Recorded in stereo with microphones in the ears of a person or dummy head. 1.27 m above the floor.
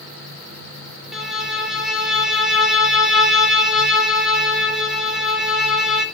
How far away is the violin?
About 2.5 m.